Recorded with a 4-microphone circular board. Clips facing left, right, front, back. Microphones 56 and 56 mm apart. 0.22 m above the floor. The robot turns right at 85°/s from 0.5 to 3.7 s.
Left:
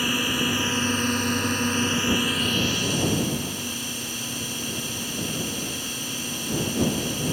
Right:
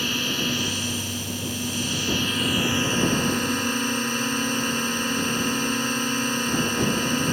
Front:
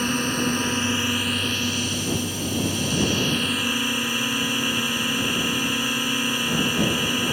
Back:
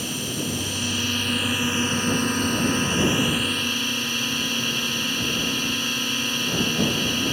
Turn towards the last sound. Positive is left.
turn(degrees=-70)